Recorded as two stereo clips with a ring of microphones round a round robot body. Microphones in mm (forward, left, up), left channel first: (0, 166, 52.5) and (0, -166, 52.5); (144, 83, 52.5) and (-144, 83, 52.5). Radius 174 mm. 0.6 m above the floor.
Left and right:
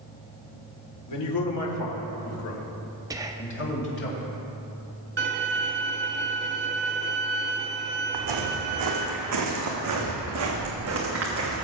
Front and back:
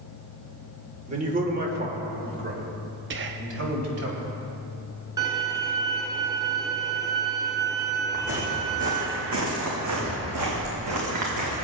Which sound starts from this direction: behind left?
A man speaking, at 1.1 s.